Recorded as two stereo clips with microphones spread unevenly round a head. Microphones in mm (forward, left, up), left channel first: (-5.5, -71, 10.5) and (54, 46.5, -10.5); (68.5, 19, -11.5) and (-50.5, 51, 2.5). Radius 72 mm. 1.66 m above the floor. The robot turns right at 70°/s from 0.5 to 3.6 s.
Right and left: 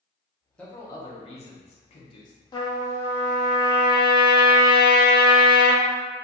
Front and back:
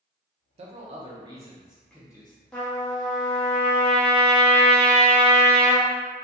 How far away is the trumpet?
About 0.7 m.